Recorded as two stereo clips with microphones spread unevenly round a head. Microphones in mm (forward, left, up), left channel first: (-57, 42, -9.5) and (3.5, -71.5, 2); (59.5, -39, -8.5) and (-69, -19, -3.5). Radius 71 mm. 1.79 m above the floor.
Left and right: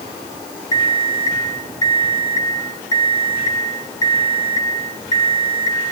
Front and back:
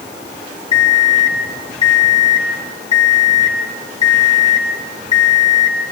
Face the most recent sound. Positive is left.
turn(degrees=50)